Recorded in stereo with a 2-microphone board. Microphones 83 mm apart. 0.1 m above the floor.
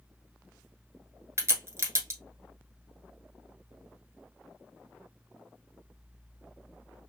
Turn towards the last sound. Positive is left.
turn(degrees=-30)  # may be behind; listen again after turning